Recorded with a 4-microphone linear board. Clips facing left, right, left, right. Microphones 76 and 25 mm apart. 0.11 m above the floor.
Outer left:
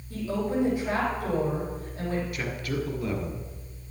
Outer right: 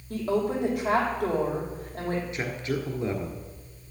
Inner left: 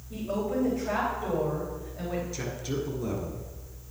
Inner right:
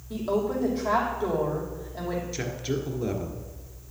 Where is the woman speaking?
55° right (ahead or behind), 4.5 m.